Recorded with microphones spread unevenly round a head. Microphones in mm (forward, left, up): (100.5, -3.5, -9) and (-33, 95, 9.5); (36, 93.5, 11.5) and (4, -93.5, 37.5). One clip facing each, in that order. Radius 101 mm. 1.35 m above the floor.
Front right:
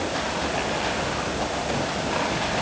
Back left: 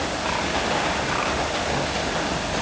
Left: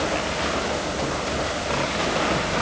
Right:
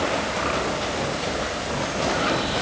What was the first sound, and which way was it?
Only background noise.